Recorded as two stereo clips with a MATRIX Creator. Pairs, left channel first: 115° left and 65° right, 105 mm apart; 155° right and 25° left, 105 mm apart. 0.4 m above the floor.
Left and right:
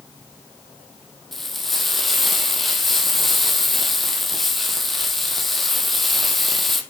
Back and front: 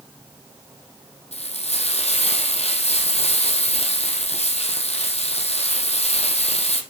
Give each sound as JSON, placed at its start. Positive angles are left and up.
{"t": 1.3, "sound": "frying", "azimuth_deg": -160, "distance_m": 3.0}